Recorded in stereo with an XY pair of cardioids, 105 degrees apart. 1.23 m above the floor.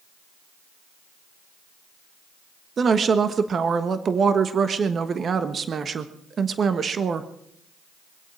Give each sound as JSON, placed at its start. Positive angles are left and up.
{"t": 2.8, "sound": "a woman speaking", "azimuth_deg": -45, "distance_m": 1.3}